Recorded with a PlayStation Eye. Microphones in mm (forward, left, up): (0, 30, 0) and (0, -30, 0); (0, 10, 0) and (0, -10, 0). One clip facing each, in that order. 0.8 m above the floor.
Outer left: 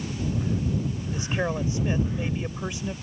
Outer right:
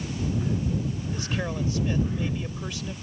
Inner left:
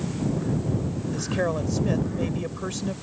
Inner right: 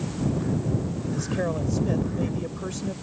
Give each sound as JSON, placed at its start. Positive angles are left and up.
{"t": 1.1, "sound": "a man speaking", "side_deg": 20}